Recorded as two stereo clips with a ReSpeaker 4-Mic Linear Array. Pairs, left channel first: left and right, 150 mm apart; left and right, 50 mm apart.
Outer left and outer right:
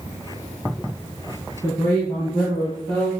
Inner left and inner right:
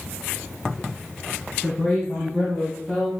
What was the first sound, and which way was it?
A woman speaking, 30° left (ahead or behind).